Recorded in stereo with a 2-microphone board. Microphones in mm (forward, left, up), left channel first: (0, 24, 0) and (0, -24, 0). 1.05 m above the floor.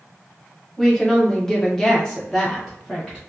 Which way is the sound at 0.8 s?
10° left (ahead or behind).